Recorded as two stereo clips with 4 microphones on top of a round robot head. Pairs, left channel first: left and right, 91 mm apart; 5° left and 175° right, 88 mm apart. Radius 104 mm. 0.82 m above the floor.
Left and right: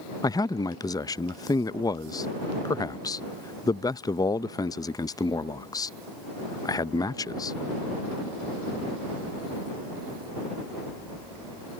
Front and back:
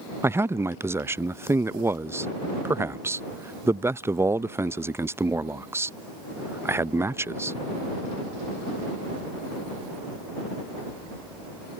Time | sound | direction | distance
0.2 | a man speaking | 125° left | ?